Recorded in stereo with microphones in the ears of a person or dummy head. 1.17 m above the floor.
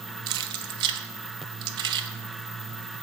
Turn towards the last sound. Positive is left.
turn(degrees=-20)  # may be behind; listen again after turning